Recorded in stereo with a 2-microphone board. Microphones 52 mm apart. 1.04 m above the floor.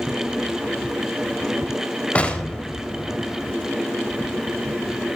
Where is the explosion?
25° left (ahead or behind), 3.5 m.